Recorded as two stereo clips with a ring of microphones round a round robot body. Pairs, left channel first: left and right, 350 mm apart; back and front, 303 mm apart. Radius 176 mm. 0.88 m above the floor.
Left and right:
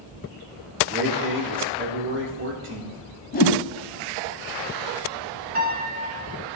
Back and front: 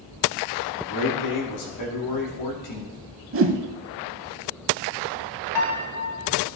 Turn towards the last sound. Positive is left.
turn(degrees=-155)